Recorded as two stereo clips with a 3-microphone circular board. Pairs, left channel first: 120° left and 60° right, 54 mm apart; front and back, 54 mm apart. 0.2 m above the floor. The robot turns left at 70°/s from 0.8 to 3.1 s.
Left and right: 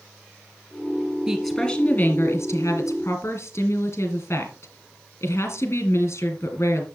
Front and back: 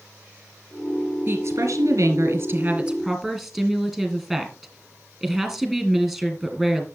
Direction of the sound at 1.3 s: 140° right.